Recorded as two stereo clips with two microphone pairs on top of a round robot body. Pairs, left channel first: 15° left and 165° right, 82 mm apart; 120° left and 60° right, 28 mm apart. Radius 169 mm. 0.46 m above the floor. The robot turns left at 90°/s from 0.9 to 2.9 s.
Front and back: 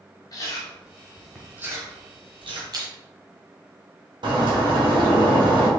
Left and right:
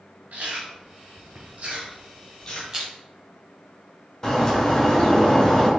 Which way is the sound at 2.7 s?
130° right.